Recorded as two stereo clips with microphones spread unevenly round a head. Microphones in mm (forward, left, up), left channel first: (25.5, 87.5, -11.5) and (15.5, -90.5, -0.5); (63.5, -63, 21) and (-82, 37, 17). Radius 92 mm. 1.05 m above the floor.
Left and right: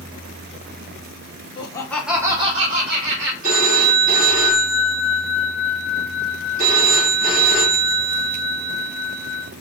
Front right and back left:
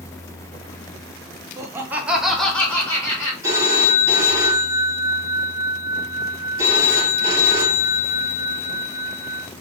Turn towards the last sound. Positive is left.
turn(degrees=-140)